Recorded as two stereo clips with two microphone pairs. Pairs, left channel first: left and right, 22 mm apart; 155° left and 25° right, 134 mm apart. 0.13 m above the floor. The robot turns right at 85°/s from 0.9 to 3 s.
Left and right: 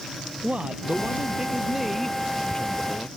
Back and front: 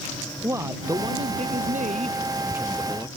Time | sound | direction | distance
0.4 | a man speaking | 90° right | ?